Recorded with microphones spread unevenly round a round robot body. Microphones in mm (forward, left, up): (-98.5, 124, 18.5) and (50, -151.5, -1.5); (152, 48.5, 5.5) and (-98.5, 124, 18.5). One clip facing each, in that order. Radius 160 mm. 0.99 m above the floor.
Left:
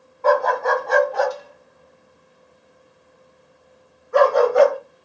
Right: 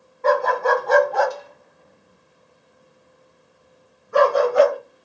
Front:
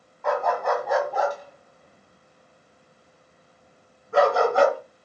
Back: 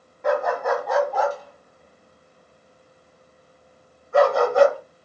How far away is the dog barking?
About 1.5 m.